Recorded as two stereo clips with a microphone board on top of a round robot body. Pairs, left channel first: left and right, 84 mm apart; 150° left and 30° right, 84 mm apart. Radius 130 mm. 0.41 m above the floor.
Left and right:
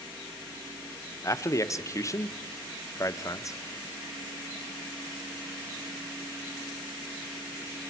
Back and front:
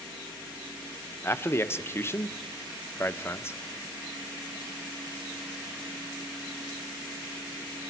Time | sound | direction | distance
1.2 | a man speaking | 110° left | 0.9 m